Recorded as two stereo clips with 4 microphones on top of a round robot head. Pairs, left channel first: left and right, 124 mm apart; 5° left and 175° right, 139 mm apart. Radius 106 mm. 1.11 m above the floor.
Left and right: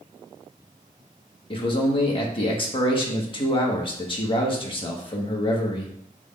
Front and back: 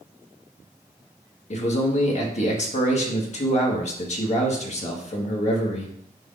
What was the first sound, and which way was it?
A man speaking, 45° left.